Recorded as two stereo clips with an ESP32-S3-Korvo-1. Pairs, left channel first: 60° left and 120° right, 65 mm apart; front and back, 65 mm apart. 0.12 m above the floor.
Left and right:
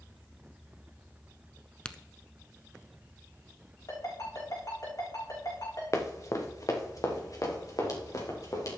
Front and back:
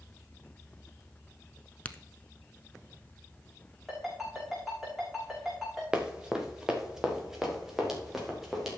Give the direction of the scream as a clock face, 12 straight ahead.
No scream in this recording.